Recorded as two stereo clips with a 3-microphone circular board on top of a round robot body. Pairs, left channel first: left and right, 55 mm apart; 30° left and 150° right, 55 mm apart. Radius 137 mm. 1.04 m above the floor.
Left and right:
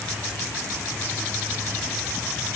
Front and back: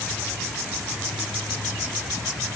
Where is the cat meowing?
I don't hear a cat meowing.